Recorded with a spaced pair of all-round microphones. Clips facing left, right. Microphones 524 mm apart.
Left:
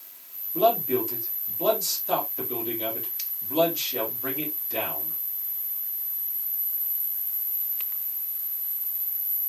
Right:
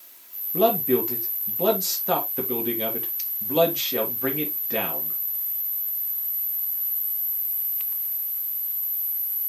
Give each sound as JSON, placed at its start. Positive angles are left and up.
{"t": 0.5, "sound": "a man speaking", "side_deg": -75, "distance_m": 3.0}